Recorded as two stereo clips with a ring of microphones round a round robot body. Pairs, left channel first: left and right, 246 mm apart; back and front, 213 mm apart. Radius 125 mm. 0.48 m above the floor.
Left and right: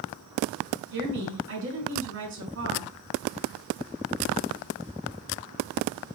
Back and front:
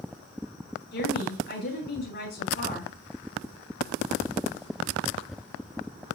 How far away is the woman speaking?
About 5.5 m.